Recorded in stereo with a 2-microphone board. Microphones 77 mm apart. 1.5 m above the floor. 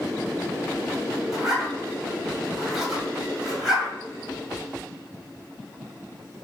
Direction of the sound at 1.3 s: 5° right (ahead or behind).